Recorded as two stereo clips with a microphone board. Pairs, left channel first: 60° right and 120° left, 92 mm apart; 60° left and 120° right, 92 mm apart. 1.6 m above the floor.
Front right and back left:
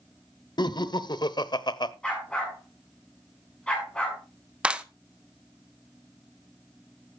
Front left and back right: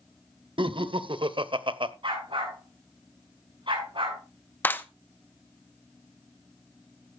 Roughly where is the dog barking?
Behind right.